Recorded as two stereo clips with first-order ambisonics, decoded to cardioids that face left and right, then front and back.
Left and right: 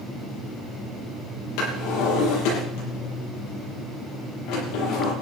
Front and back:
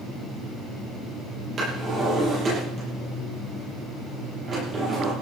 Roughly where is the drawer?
Behind left.